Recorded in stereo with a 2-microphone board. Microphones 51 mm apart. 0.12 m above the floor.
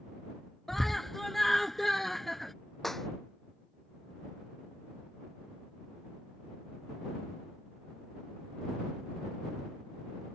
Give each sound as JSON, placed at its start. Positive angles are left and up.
{"t": 0.7, "sound": "a scream", "side_deg": 5}
{"t": 2.8, "sound": "a clap", "side_deg": 5}